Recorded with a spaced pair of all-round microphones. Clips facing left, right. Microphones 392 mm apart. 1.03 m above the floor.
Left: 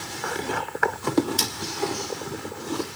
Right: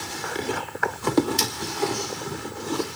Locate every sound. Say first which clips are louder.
1.4 s cutlery clinking: right 2 dB; 35° right (ahead or behind), 1.9 m